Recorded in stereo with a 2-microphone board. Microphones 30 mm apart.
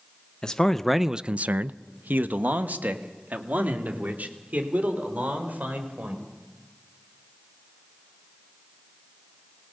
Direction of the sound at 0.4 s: 25° left (ahead or behind).